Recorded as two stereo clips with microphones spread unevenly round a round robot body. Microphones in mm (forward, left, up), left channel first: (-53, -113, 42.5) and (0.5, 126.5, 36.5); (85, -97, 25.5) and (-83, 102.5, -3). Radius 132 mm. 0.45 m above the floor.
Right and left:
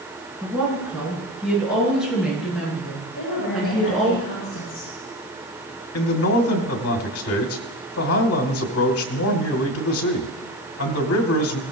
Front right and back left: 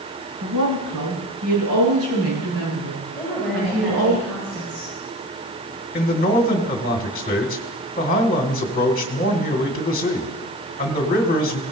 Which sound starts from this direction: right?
A man speaking, at 5.9 s.